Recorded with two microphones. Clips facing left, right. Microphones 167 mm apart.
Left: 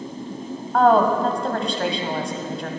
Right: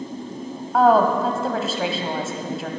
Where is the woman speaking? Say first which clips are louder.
Even; 5° right (ahead or behind), 1.1 m.